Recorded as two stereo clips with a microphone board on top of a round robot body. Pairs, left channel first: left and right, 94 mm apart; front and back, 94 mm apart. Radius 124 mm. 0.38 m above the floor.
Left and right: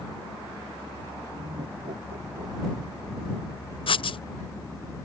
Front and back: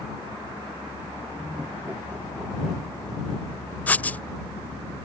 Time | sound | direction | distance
1.3 | laughter | 110° right | ?
3.9 | writing | 70° left | ?